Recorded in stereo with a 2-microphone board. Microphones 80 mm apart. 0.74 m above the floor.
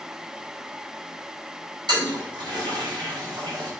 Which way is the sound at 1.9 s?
70° right (ahead or behind).